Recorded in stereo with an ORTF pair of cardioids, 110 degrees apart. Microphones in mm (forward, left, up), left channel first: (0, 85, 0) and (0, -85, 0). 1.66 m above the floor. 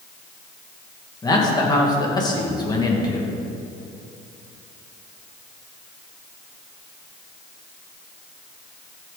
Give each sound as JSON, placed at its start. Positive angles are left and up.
{"t": 1.2, "sound": "a man speaking", "azimuth_deg": 25, "distance_m": 2.5}